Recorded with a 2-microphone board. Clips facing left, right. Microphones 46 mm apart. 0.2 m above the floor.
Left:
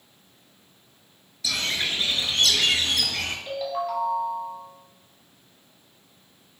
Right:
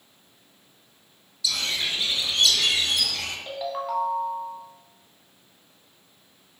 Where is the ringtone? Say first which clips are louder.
Even; 20° right (ahead or behind), 0.9 m.